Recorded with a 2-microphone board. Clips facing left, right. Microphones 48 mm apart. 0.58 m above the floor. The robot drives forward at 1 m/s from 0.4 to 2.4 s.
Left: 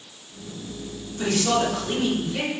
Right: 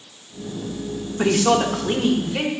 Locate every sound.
1.2 s a woman speaking: 50° right (ahead or behind), 0.9 m; by 2.5 s 25° right (ahead or behind), 1.7 m